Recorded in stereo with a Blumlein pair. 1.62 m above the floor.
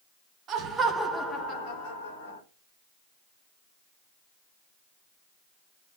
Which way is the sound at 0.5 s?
30° right.